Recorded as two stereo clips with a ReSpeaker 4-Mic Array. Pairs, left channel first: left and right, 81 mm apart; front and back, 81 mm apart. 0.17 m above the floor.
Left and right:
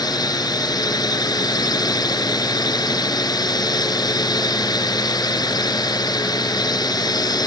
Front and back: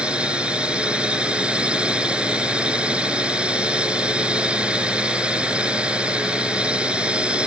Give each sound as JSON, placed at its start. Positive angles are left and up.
{"t": 0.0, "sound": "a drone", "azimuth_deg": 105}